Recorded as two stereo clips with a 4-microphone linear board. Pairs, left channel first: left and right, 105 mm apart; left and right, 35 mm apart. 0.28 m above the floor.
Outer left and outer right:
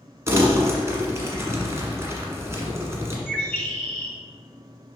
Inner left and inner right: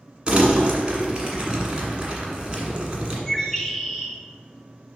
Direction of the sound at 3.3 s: 20° left (ahead or behind).